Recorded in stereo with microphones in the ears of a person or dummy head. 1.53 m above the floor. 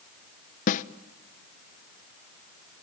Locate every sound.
0.7 s a snare drum: 45° left (ahead or behind), 0.7 m